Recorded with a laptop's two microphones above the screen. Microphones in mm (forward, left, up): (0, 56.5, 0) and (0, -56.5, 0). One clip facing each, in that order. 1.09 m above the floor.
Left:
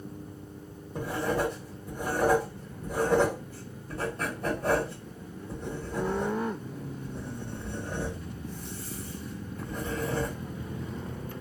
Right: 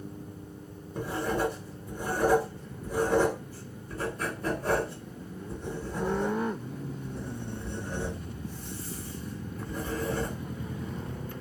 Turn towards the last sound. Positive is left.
turn(degrees=60)  # may be behind; listen again after turning